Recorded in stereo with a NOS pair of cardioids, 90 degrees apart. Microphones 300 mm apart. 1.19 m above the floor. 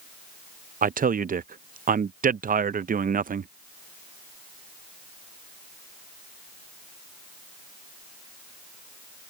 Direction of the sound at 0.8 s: 30° right.